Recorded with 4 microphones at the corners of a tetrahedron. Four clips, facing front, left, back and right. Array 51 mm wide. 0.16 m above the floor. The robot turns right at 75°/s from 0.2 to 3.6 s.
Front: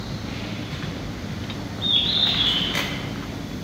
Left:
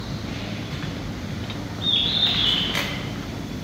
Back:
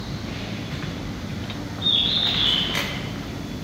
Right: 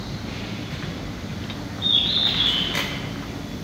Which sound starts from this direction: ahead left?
A bird, at 1.8 s.